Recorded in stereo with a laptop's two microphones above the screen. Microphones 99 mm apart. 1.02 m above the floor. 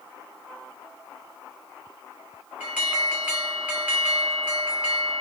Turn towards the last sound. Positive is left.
turn(degrees=-10)  # may be behind; listen again after turning